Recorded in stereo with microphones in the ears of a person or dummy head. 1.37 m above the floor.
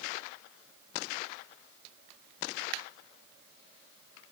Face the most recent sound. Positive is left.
No sound to turn to.